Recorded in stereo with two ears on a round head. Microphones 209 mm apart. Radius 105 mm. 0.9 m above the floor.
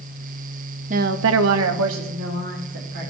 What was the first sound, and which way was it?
A woman speaking, 35° right (ahead or behind).